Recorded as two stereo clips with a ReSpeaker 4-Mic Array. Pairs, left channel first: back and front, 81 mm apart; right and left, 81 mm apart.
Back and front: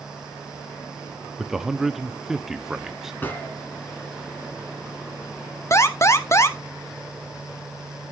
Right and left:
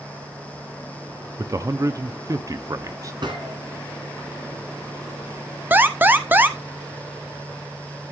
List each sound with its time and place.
1.4 s a man speaking: 85° left, 0.7 m
3.2 s a gunshot: 115° left, 2.5 m
5.7 s an alarm: 145° left, 0.9 m